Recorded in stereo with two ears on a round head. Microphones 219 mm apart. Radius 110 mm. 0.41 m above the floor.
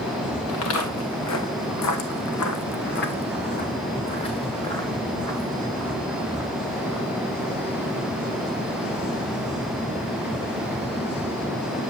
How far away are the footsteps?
About 2 m.